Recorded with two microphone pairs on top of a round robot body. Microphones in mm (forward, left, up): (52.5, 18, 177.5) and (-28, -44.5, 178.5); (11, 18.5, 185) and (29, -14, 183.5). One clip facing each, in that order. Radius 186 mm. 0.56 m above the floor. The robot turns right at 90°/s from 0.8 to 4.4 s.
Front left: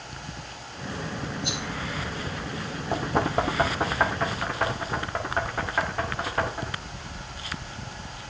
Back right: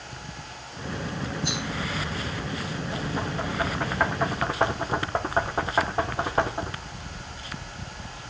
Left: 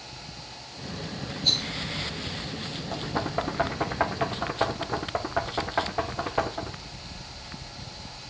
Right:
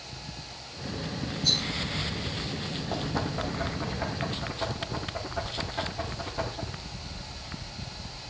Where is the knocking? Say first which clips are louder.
Front left 8 dB, left 3 dB; 20° left, 1.6 m; by 6.8 s 155° left, 1.6 m.